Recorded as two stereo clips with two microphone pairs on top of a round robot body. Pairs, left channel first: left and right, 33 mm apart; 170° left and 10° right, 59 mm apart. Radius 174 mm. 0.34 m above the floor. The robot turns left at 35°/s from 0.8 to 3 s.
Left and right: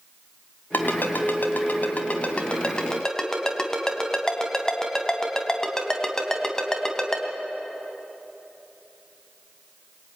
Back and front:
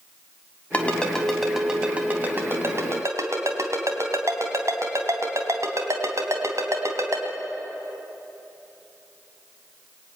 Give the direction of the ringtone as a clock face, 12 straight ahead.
9 o'clock.